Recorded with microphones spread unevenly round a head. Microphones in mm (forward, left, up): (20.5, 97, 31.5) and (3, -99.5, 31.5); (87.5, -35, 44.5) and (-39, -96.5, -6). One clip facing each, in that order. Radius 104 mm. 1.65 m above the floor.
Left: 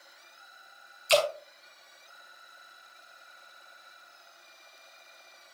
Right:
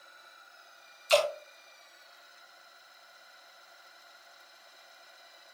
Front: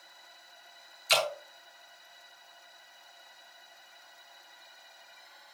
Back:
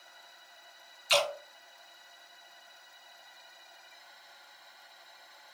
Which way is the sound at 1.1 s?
15° left.